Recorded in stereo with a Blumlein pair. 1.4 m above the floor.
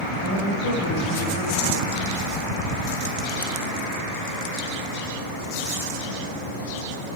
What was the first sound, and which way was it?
A woman speaking, 50° left.